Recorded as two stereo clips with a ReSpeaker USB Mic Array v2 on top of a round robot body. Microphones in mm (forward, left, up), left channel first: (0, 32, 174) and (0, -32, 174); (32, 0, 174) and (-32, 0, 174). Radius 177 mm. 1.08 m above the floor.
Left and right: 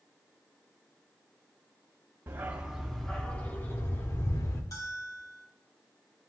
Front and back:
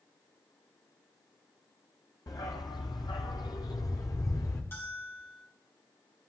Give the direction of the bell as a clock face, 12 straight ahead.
10 o'clock.